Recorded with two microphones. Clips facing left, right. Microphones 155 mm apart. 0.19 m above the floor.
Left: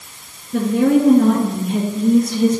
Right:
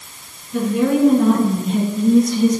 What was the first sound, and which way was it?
A woman speaking, 50° left (ahead or behind).